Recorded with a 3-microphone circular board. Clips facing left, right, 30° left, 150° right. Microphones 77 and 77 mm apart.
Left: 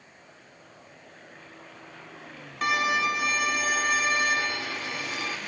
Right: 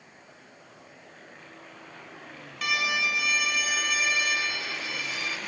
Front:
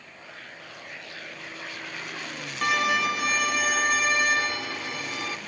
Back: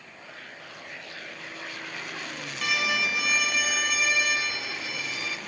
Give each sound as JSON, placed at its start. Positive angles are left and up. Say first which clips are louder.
{"t": 2.6, "sound": "a violin", "louder": "left 4 dB, front 5 dB", "azimuth_deg": 55, "distance_m": 1.3}